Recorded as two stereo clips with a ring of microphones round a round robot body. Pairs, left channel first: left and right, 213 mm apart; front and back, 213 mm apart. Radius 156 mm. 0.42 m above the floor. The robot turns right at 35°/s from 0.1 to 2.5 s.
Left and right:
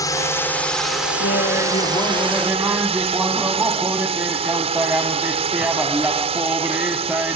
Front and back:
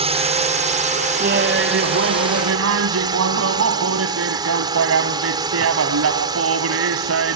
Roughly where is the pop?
I don't hear a pop.